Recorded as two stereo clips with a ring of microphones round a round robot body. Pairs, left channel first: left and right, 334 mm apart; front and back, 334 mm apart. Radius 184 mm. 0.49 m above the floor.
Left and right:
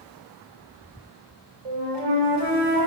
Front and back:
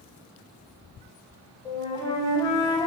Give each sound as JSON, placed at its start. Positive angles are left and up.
{"t": 1.6, "sound": "a flute", "azimuth_deg": -80, "distance_m": 0.7}